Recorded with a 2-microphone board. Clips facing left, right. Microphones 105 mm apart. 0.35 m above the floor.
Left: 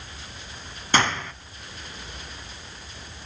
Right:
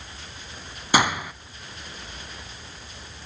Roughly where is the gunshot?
Centre.